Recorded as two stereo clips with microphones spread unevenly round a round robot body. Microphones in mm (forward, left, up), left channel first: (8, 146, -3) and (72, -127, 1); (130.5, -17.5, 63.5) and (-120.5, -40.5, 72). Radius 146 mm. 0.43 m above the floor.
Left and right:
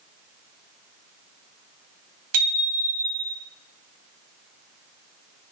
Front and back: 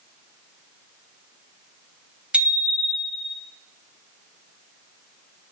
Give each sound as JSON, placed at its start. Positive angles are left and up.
{"t": 2.3, "sound": "a bicycle bell", "azimuth_deg": -90, "distance_m": 2.0}